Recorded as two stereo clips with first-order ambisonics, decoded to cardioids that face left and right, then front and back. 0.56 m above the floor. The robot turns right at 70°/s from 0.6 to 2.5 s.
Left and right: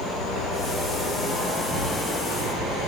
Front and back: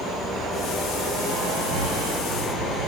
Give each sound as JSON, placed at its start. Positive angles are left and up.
{"t": 0.0, "sound": "an insect", "azimuth_deg": 85, "distance_m": 3.5}